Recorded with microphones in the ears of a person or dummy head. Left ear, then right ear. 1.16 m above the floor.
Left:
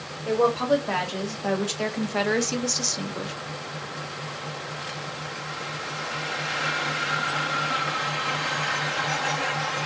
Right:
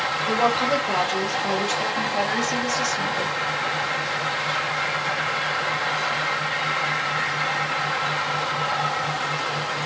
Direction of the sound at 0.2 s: 20° left (ahead or behind).